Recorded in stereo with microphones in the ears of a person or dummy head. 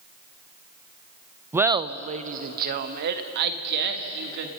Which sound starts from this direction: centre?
Laughter, at 1.5 s.